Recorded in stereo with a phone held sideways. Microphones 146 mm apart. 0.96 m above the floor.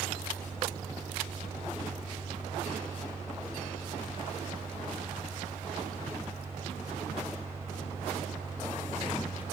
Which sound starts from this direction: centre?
A fan, at 0.0 s.